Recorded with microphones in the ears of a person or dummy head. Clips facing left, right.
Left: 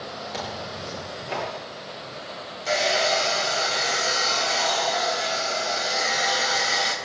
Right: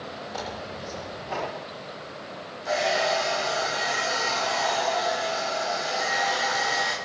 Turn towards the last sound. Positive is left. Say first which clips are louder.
# left 1 dB
turn(degrees=45)  # may be behind; listen again after turning